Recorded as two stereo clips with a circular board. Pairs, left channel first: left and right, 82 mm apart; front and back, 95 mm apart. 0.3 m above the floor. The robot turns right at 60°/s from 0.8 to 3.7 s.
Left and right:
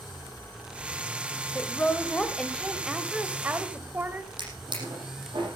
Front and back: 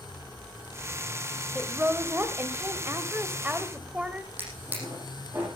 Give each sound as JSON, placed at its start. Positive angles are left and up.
{"t": 1.6, "sound": "a woman speaking", "azimuth_deg": 110, "distance_m": 1.4}
{"t": 4.4, "sound": "a drawer", "azimuth_deg": -110, "distance_m": 7.0}